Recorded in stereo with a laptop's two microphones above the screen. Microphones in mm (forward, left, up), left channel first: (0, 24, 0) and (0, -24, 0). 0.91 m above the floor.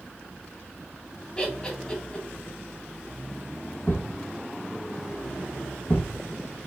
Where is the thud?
50° left (ahead or behind), 1.4 m.